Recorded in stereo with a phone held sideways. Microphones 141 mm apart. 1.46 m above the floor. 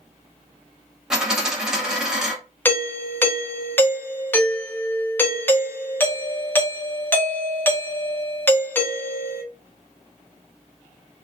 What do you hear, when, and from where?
1.1 s a dropped coin: 5° right (ahead or behind), 0.8 m
2.6 s a doorbell: 15° left (ahead or behind), 0.5 m